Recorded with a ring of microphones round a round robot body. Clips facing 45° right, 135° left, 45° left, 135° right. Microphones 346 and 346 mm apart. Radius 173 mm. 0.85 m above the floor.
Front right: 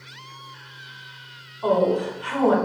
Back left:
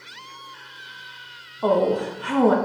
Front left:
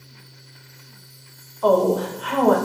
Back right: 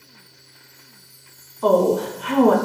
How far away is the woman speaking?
About 0.7 m.